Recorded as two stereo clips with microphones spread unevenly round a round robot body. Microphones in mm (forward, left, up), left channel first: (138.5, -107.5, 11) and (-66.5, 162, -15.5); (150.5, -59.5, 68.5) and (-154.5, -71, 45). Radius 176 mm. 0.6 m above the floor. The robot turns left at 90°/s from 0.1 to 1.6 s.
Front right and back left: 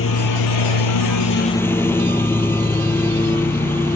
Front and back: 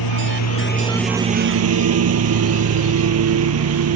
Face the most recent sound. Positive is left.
turn(degrees=-135)